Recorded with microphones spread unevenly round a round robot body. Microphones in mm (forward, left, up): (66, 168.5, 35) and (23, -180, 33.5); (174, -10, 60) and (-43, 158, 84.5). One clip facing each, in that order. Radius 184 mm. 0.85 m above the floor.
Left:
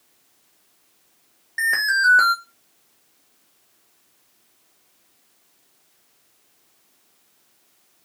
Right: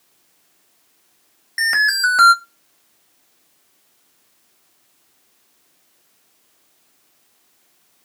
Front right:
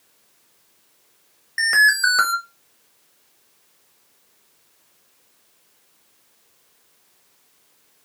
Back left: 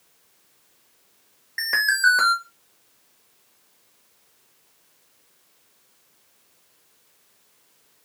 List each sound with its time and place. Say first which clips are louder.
1.6 s an alarm: right 2 dB, front right 3 dB; 80° right, 1.1 m